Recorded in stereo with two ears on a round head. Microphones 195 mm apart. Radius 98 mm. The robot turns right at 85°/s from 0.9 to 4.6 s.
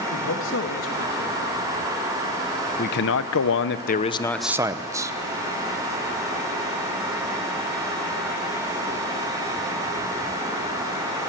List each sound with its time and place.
0.1 s a man speaking: 110° left, 2.5 m; by 1.4 s 155° left, 2.5 m
2.8 s a man speaking: 40° left, 1.0 m; by 5.1 s 165° right, 1.0 m